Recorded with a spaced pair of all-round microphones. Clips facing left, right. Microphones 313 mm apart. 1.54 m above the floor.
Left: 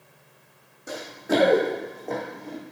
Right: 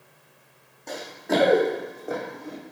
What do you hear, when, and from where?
0.9 s running footsteps: 10° left (ahead or behind), 4 m; by 2.6 s 15° right (ahead or behind), 4 m